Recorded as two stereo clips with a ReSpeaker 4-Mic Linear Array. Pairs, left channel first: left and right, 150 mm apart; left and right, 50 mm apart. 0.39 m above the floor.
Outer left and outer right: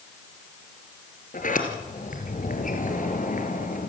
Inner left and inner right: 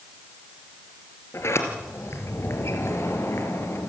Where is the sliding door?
65° left (ahead or behind), 3 m.